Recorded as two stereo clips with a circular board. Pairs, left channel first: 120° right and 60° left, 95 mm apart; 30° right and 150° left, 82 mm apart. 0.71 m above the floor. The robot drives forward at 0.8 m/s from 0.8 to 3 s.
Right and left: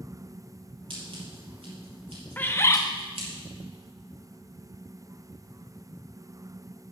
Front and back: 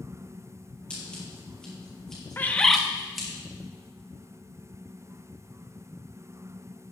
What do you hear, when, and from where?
0.9 s scissors: 45° left, 5.5 m; by 3.3 s 60° left, 4.5 m
2.4 s a bird: 70° right, 0.7 m; by 2.8 s 120° right, 0.7 m